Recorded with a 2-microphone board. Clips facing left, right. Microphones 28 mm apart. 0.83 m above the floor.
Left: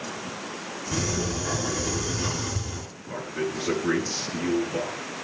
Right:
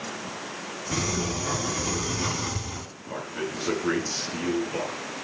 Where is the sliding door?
25° right (ahead or behind), 2 m.